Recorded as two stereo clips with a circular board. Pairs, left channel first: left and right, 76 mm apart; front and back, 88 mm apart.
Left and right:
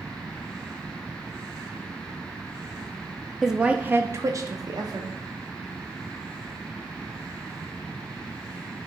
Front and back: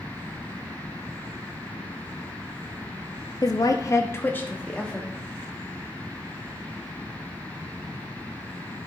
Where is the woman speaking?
5° right, 0.7 m; by 5.1 s 80° right, 1.1 m.